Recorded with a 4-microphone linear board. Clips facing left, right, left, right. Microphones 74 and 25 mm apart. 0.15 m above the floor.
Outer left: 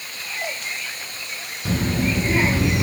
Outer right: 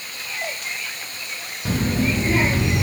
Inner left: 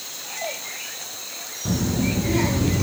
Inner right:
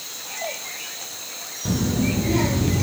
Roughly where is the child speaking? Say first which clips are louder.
Outer right 1 dB, inner right 1 dB; centre.